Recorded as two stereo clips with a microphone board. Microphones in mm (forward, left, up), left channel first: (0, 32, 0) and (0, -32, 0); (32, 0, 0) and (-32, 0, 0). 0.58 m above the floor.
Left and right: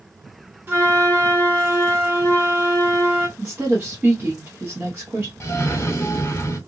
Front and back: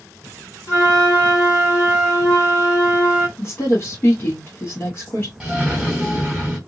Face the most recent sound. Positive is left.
turn(degrees=110)